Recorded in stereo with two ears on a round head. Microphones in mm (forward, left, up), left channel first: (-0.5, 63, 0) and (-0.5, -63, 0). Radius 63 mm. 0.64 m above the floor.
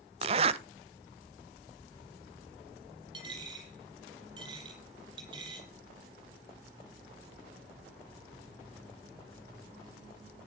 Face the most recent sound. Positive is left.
turn(degrees=-35)  # may be behind; listen again after turning